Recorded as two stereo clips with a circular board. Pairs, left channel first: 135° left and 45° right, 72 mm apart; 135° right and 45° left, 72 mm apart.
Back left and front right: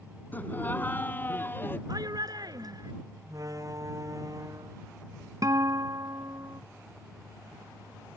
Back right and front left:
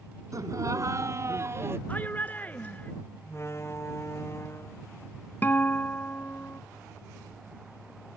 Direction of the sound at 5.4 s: 75° right.